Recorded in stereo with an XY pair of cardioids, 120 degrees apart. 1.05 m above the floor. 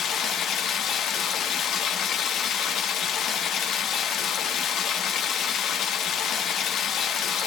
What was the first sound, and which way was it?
Running water, 65° left.